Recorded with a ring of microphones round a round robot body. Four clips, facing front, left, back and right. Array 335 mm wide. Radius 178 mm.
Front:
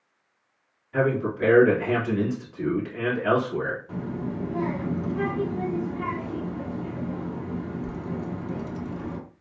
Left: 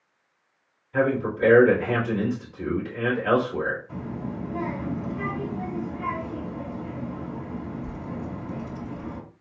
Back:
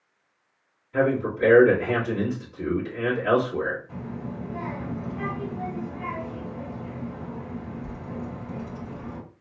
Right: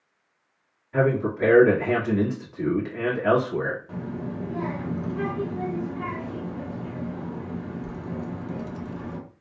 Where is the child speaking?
45° right, 1.2 m.